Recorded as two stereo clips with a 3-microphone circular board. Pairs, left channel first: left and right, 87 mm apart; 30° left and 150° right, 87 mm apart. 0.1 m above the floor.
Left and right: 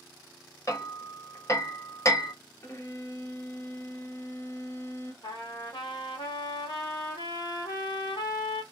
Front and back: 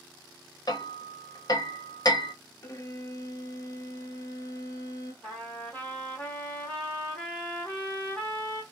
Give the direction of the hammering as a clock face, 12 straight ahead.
10 o'clock.